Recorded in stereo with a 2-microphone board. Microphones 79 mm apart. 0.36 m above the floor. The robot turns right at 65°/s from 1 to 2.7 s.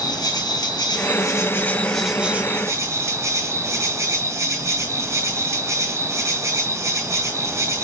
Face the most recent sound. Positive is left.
turn(degrees=-135)